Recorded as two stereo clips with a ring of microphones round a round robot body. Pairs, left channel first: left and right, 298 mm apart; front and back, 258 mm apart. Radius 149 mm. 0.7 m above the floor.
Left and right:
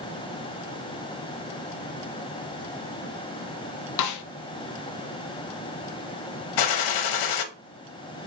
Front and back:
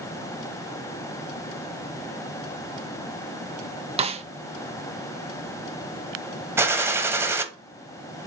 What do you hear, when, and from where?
4.0 s a snare drum: 115° left, 0.7 m
6.6 s a gunshot: 100° left, 1.0 m